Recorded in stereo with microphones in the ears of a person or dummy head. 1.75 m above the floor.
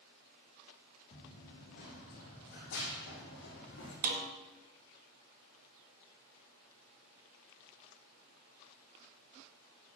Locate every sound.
1.1 s running footsteps: 45° left (ahead or behind), 2.5 m; by 3.9 s 65° left (ahead or behind), 5.5 m
4.0 s a snare drum: 50° right (ahead or behind), 1.3 m